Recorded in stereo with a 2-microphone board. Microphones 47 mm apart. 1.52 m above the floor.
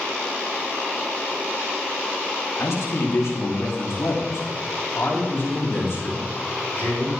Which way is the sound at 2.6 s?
70° left (ahead or behind).